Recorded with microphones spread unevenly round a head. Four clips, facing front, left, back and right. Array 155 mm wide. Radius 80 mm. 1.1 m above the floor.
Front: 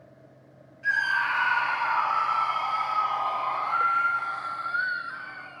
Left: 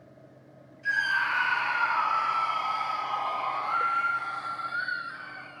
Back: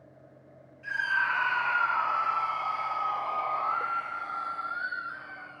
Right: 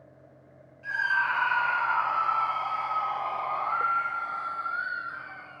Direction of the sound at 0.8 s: 20° right.